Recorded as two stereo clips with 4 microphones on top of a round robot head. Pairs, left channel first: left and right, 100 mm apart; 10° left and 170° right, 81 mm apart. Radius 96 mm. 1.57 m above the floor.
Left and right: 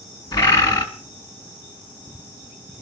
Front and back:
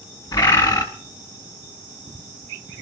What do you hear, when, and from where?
0.3 s a bird: 50° left, 2 m